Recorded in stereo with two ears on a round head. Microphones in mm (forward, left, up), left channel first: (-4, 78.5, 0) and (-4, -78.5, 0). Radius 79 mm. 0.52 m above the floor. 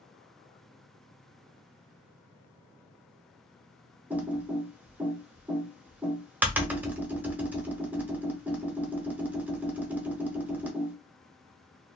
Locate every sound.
4.1 s typing on a keyboard: 10° right (ahead or behind), 0.7 m